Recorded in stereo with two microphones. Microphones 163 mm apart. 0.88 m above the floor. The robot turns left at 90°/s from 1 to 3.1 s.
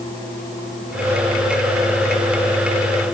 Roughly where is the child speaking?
I don't hear a child speaking.